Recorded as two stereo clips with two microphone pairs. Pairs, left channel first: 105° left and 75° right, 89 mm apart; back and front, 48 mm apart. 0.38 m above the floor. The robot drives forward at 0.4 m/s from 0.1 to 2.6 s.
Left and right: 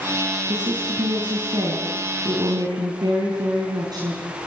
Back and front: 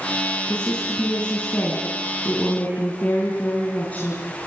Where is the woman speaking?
110° right, 4 m; by 4.2 s 120° right, 4.5 m.